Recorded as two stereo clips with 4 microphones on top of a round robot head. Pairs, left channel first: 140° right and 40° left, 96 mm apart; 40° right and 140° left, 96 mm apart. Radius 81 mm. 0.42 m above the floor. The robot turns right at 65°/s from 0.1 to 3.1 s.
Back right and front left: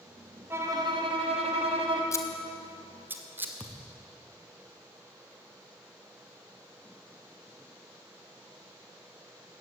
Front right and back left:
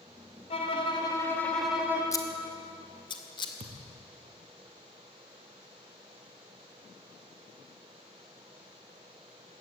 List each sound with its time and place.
0.5 s a violin: 25° right, 3 m; by 2.0 s 70° left, 3 m
2.1 s scissors: 90° right, 2 m; by 3.5 s 25° right, 2 m
3.6 s a thud: 140° left, 4 m